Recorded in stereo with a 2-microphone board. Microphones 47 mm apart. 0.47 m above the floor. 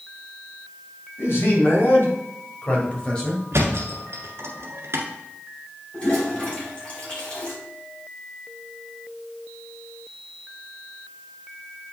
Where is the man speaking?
65° left (ahead or behind), 3 m; by 3.4 s 10° left (ahead or behind), 1.7 m.